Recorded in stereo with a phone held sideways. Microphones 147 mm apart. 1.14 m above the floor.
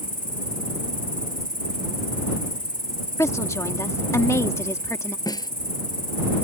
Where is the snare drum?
25° left (ahead or behind).